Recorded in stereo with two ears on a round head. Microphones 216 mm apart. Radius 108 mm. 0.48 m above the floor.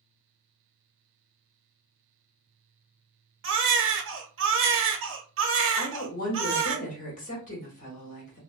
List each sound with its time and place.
3.4 s a baby crying: 55° right (ahead or behind), 0.6 m
5.8 s a woman speaking: 35° left (ahead or behind), 1.0 m